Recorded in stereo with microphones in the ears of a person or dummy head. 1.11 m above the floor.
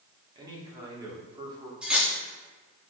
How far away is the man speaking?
About 1.9 m.